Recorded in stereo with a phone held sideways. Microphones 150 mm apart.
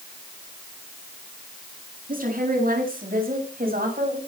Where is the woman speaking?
70° right (ahead or behind), 9 m; by 4.2 s 80° right, 6.5 m.